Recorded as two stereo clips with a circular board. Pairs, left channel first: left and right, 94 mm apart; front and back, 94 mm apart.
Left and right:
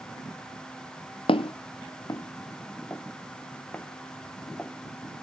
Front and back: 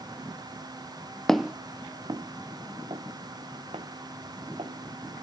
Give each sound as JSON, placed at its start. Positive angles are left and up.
{"t": 1.3, "sound": "footsteps", "azimuth_deg": 85, "distance_m": 0.5}